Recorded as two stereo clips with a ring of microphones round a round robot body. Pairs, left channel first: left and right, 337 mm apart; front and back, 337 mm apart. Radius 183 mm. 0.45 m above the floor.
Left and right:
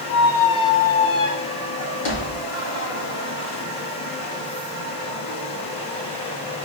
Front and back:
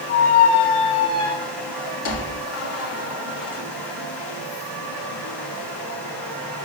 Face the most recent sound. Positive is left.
turn(degrees=40)